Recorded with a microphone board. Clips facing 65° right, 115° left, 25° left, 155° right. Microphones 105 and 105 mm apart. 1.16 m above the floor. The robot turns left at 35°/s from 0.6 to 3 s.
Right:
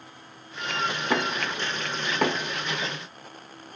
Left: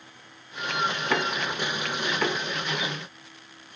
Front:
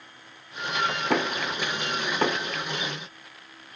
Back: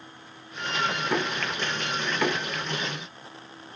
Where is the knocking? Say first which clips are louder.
Even, front 2 dB; 5° left, 0.9 m; by 2.5 s 40° right, 0.9 m.